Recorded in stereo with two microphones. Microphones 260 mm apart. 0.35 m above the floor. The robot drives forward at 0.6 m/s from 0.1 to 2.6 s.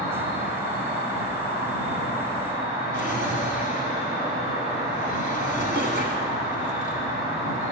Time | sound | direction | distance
0.0 | an insect | 35° right (ahead or behind) | 5 m
2.9 | a drawer | 40° right (ahead or behind) | 1.4 m